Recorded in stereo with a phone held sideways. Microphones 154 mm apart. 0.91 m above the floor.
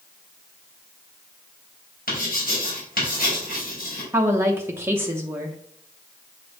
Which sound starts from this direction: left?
Writing, at 2.1 s.